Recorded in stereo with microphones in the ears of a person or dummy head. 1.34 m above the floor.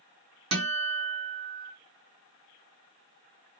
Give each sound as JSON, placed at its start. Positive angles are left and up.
{"t": 0.5, "sound": "a guitar", "side_deg": -70, "distance_m": 1.5}